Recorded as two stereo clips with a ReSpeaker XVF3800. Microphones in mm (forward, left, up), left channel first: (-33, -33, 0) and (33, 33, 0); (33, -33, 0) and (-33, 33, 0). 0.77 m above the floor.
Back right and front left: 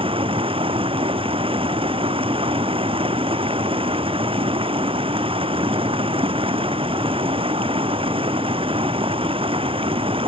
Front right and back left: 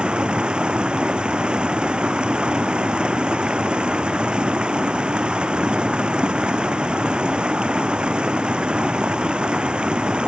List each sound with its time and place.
0.0 s running water: 55° left